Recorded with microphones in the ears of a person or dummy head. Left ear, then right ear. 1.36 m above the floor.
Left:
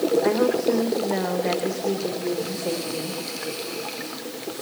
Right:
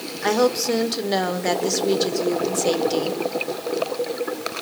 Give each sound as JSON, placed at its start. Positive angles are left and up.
{"t": 0.2, "sound": "a woman speaking", "side_deg": -90, "distance_m": 4.0}